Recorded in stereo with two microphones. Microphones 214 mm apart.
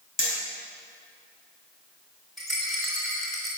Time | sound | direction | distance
0.2 | hammering | 70° left (ahead or behind) | 5 m
2.4 | a rattle | centre (ahead or behind) | 4.5 m